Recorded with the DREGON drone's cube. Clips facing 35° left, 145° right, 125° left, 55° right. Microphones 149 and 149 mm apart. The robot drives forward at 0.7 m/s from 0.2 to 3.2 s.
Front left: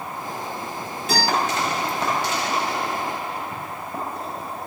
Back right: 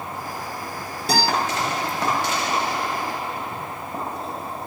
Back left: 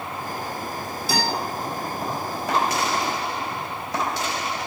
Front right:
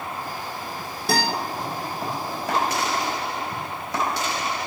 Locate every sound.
1.1 s a guitar: 90° right, 4.5 m